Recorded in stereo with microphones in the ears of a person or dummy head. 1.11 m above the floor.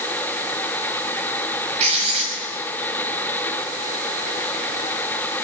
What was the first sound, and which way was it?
Writing, 40° right (ahead or behind).